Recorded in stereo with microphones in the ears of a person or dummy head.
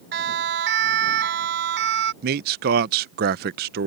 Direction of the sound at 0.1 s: 60° right (ahead or behind).